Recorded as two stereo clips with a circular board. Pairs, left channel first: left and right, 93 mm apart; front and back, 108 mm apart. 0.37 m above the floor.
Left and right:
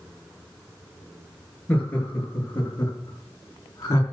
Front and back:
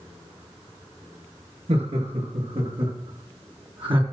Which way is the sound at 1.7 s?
165° left.